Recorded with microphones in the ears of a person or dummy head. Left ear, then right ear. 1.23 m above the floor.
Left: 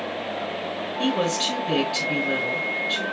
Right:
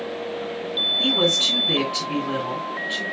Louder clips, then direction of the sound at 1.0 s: Right 3 dB; 20° left (ahead or behind).